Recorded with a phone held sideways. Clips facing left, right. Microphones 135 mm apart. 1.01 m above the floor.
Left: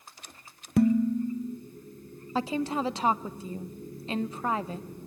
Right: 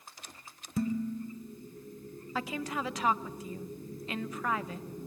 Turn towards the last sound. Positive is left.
turn(degrees=30)  # may be behind; listen again after turning